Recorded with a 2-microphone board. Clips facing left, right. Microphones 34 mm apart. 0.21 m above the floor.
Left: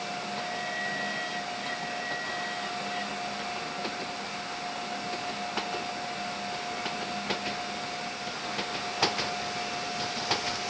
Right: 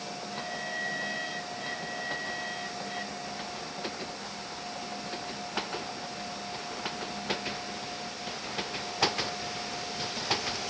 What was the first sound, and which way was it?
Only background noise.